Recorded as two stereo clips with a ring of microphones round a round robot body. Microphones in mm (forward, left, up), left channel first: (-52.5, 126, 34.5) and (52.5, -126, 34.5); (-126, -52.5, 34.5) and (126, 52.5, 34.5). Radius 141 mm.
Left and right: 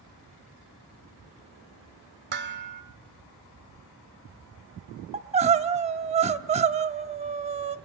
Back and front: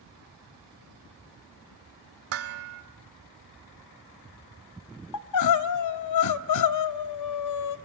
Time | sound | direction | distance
2.3 | dishes clattering | 15° right | 1.7 m
5.1 | crying | 135° right | 0.7 m